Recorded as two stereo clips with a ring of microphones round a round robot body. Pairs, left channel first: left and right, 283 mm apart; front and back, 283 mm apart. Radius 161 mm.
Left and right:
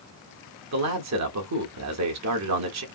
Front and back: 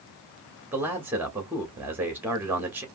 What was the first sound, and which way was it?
A man speaking, 100° right.